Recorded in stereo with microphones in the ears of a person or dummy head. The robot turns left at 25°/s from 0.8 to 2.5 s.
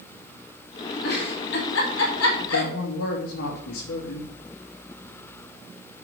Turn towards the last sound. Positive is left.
turn(degrees=80)